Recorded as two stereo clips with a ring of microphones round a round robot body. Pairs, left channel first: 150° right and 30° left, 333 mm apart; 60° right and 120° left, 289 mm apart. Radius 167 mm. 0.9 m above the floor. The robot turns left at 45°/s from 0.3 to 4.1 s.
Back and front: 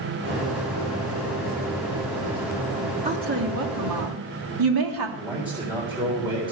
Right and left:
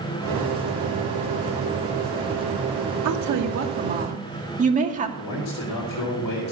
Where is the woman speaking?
105° left, 2.5 m; by 5.1 s 55° left, 2.5 m.